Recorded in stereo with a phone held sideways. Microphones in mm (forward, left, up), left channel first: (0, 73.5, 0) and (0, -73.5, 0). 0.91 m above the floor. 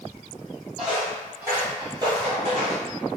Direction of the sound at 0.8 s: 5° right (ahead or behind).